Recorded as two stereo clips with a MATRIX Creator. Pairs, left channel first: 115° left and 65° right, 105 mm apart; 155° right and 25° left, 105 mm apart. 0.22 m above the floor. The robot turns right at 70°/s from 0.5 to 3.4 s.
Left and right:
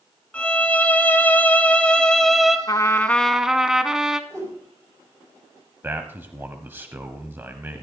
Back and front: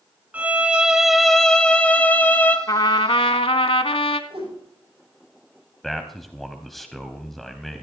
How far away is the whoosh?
About 8 m.